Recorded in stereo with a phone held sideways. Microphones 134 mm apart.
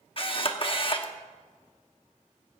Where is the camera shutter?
45° left (ahead or behind), 0.9 m.